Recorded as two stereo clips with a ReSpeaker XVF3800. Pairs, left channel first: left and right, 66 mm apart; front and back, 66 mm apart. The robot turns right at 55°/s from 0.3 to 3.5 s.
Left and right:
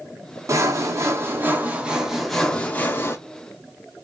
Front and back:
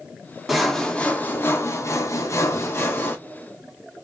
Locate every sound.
0.5 s sawing: 95° right, 0.6 m; by 3.2 s 50° left, 0.6 m